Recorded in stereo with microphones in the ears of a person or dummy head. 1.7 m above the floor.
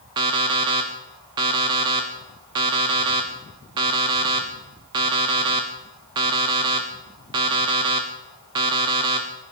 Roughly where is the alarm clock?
Right.